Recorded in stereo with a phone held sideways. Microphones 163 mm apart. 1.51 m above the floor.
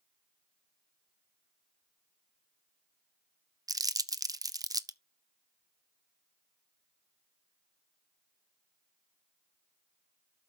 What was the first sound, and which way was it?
Crumpling, 20° right (ahead or behind).